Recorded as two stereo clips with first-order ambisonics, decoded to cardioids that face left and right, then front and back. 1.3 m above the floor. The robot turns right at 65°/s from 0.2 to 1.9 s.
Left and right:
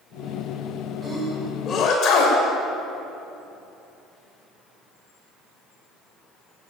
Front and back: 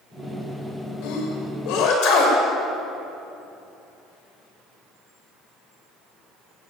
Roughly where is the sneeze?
Ahead.